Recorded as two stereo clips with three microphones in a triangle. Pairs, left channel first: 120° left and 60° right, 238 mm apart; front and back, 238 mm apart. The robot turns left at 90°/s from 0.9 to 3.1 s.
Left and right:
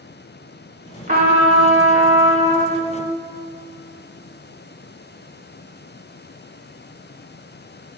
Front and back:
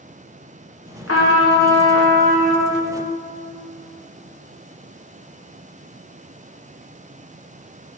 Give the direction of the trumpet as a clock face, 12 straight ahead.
12 o'clock.